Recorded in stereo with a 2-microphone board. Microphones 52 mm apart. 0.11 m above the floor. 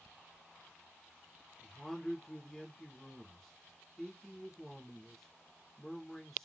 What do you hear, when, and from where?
1.6 s a man speaking: 5° left (ahead or behind), 1.2 m